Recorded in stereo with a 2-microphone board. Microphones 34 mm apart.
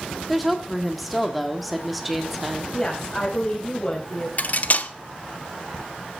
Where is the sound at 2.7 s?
15° left (ahead or behind), 4 m.